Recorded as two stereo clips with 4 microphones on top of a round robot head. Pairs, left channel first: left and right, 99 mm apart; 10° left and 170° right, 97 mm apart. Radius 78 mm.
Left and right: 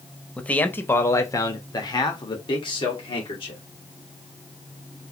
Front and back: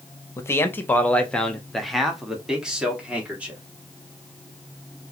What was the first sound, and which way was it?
A man speaking, 20° left.